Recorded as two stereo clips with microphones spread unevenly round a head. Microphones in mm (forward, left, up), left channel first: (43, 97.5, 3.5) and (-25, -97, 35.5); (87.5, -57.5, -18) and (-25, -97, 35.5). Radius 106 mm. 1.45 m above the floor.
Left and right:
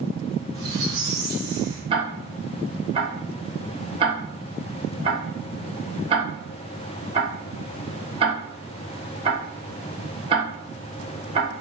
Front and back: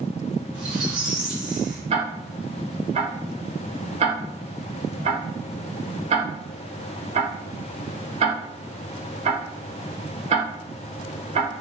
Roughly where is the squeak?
Behind right.